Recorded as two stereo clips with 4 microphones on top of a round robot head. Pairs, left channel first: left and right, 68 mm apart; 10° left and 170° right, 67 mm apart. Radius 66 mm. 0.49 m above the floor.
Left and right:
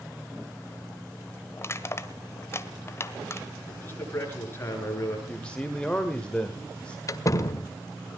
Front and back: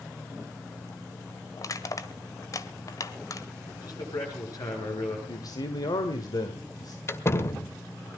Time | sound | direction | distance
1.6 | crushing | 40° left | 1.4 m
3.7 | a man speaking | 35° left | 9.5 m
5.3 | a man speaking | 15° left | 1.7 m
7.1 | a door slam | 55° left | 1.5 m